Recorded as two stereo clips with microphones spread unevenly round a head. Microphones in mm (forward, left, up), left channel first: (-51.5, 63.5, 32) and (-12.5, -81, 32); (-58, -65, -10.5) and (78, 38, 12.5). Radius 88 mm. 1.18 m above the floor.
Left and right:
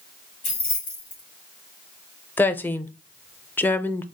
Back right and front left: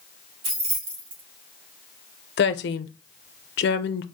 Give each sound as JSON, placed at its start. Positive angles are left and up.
{"t": 0.4, "sound": "keys jangling", "azimuth_deg": 60, "distance_m": 2.0}
{"t": 2.4, "sound": "a woman speaking", "azimuth_deg": -175, "distance_m": 0.5}